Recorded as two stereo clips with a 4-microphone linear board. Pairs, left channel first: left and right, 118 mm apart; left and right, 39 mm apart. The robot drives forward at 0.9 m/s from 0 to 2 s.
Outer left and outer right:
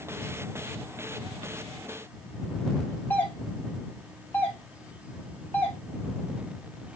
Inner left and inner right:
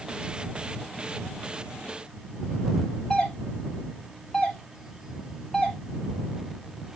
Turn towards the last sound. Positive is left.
turn(degrees=15)  # may be behind; listen again after turning